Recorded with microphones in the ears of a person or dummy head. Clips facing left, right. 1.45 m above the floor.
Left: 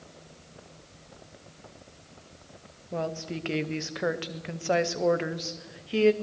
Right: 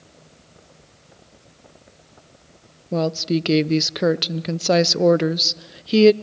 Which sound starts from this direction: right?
A woman speaking, at 2.9 s.